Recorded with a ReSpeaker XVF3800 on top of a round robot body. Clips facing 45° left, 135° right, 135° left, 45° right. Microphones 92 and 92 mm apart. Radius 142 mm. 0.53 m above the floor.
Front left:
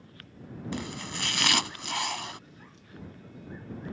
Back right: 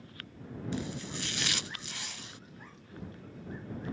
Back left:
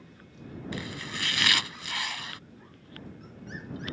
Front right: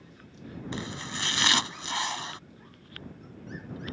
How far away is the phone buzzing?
No phone buzzing in this recording.